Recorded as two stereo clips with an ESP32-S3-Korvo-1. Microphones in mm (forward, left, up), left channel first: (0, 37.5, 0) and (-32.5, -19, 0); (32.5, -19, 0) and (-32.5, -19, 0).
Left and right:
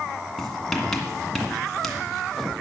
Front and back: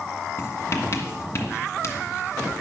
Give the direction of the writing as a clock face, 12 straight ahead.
1 o'clock.